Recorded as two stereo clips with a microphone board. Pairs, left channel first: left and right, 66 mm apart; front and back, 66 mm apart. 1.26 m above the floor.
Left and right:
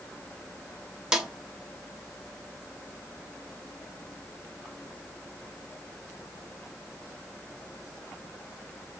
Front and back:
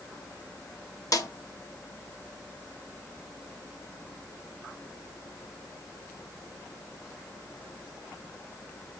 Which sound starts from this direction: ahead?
A snare drum, at 1.1 s.